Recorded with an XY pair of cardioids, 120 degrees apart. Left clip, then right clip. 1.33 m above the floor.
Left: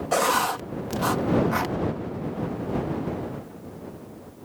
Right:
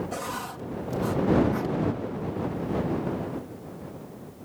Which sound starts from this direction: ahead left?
Writing, at 0.1 s.